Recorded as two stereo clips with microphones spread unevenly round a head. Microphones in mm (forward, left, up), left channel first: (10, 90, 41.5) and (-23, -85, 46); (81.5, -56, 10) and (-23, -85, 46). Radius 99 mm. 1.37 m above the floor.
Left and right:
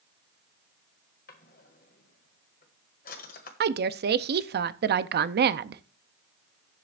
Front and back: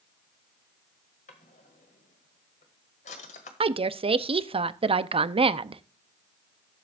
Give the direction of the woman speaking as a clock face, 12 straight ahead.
4 o'clock.